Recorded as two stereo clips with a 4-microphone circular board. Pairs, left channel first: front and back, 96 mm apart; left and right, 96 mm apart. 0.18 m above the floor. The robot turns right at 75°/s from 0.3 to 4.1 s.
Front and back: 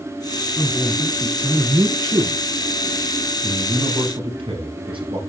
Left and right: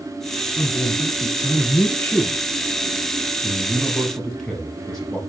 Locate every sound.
0.6 s a man speaking: 50° left, 1.5 m; by 2.4 s 170° right, 1.5 m
3.4 s a man speaking: 125° left, 4.5 m; by 5.2 s 175° left, 4.5 m